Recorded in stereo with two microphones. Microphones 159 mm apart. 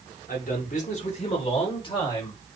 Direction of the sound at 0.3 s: 65° left (ahead or behind).